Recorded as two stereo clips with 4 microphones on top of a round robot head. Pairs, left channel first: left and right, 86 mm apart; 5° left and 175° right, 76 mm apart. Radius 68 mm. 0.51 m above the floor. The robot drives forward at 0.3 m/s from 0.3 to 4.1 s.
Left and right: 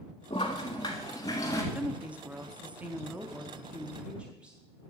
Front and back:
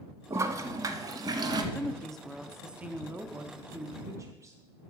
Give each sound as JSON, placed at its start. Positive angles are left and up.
{"t": 0.3, "sound": "a toilet flushing", "azimuth_deg": 135, "distance_m": 0.6}
{"t": 1.7, "sound": "a woman speaking", "azimuth_deg": -45, "distance_m": 0.7}